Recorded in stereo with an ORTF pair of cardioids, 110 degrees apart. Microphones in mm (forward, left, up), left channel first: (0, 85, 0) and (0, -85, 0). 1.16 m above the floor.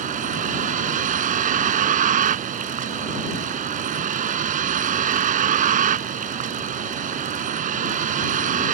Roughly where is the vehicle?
Ahead right.